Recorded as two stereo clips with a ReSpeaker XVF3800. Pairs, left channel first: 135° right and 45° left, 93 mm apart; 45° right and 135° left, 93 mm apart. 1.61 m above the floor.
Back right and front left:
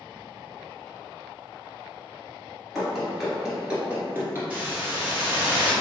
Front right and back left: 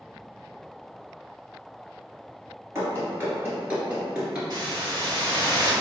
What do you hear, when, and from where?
2.8 s running footsteps: 140° left, 1.7 m; by 4.4 s 65° left, 1.7 m
4.5 s a hiss: 120° left, 1.5 m